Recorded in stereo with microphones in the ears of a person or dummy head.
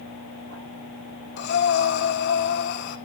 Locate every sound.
1.4 s breathing: 65° left (ahead or behind), 1.5 m